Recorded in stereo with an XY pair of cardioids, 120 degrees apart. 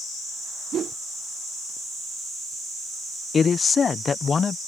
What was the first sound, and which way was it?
A whoosh, 50° right.